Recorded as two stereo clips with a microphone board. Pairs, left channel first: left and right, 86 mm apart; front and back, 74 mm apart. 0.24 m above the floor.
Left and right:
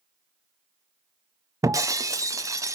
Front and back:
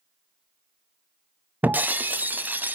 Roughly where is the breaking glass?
Behind right.